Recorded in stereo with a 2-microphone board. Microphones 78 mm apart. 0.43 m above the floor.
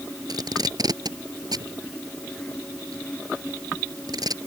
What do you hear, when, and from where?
0.3 s tape being pulled: 60° right (ahead or behind)